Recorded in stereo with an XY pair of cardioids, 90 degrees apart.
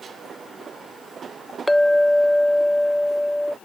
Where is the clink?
5° left.